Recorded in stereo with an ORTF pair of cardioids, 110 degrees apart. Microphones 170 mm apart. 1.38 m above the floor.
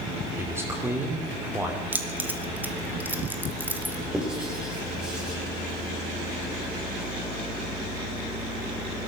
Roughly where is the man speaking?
Ahead.